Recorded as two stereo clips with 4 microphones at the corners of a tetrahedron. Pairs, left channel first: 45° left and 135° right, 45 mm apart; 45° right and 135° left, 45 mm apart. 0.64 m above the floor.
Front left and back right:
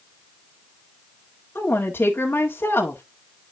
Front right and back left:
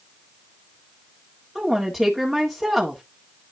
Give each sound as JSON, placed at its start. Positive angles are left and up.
{"t": 1.6, "sound": "a woman speaking", "azimuth_deg": 50, "distance_m": 1.7}